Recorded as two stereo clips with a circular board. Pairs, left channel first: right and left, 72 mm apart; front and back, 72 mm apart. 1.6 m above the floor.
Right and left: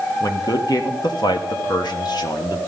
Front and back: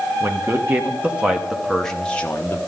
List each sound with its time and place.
0.2 s a man speaking: 125° right, 1.3 m; by 2.6 s 60° right, 1.0 m